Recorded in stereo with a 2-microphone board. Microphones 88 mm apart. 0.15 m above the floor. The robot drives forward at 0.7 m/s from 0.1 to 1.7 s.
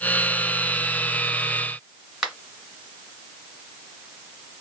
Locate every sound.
2.2 s a finger snap: 5° right (ahead or behind), 1.7 m